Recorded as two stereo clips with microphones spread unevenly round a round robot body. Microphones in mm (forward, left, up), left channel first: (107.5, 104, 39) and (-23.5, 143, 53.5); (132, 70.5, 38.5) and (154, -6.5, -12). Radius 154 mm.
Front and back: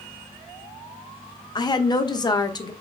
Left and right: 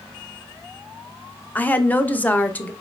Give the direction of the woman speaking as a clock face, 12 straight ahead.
12 o'clock.